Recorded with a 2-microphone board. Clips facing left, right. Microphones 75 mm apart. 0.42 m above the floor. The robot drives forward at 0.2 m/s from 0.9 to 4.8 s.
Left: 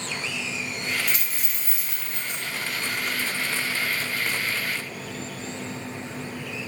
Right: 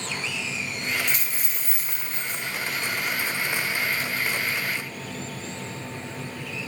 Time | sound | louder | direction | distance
1.1 | a dropped coin | right 1 dB | 25° left (ahead or behind) | 1.3 m